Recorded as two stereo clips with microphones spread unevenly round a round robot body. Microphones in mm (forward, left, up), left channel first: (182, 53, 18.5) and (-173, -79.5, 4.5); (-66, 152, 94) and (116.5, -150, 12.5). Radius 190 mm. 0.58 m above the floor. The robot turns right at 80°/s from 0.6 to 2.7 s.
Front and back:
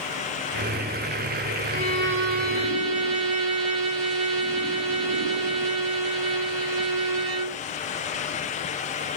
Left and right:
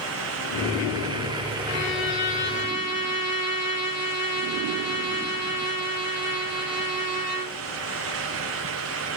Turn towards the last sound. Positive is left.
turn(degrees=-165)